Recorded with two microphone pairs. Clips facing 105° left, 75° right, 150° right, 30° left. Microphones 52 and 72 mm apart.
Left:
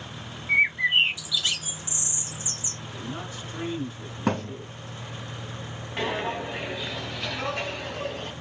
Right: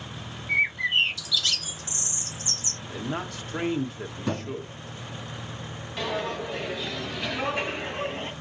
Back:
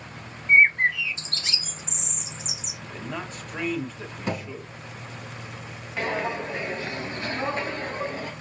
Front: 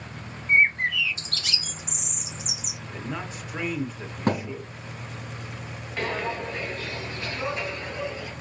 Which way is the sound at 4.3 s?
65° left.